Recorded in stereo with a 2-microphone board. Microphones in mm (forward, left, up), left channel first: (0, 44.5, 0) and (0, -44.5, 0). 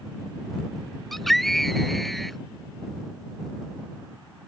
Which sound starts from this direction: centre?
A scream, at 1.1 s.